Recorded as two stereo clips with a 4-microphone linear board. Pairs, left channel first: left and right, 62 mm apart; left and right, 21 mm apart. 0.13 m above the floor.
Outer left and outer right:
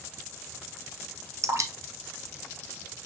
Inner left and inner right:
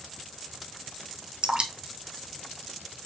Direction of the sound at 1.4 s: 60° right (ahead or behind).